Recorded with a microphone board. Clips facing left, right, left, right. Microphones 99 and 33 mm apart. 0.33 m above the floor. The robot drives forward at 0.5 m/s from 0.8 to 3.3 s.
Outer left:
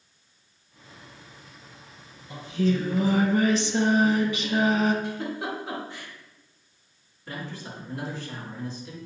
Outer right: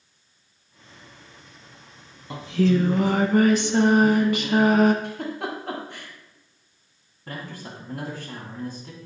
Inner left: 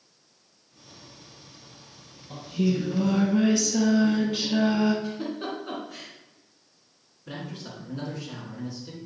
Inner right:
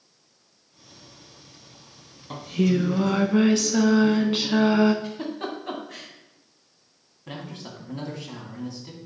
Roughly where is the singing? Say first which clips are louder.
Outer right 4 dB, inner right 3 dB; right.